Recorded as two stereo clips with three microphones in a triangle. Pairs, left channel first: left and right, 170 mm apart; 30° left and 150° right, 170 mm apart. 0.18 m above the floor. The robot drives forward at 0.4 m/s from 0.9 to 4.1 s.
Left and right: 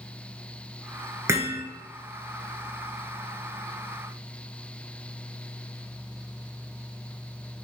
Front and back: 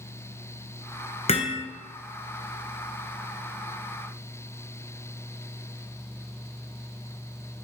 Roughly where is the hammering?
Ahead.